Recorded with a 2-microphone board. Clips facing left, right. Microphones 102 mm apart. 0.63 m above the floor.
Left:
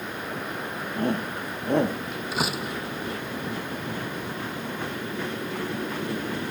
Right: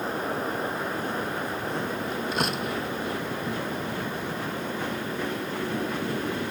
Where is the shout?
60° left (ahead or behind).